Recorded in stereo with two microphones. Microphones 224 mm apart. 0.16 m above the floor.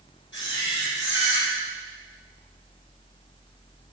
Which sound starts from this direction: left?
A camera shutter, at 0.3 s.